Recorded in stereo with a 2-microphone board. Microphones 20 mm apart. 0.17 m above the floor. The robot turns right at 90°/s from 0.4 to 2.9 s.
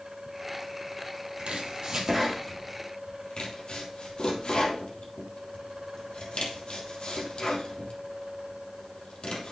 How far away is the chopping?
About 3 m.